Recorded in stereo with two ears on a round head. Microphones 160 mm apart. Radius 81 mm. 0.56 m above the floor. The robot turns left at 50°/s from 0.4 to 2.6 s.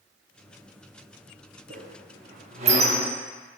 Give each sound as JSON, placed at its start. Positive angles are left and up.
{"t": 1.7, "sound": "a squeak", "side_deg": -55, "distance_m": 0.7}